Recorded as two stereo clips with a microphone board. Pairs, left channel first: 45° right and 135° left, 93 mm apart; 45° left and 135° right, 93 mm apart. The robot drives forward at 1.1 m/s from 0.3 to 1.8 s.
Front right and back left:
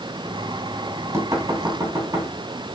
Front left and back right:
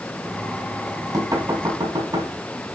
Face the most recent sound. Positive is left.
turn(degrees=-175)